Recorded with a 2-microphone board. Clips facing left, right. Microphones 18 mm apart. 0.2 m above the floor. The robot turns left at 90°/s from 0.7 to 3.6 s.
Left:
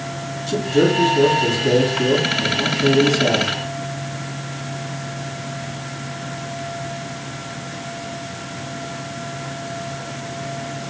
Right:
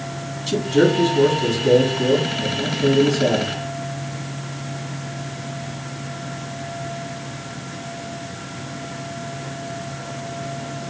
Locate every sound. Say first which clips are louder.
0.5 s a man speaking: even; 105° right, 1.8 m; by 3.5 s straight ahead, 1.8 m